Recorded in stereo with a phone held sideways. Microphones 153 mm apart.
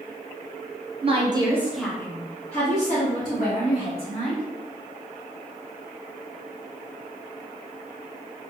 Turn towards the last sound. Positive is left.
turn(degrees=65)  # may be behind; listen again after turning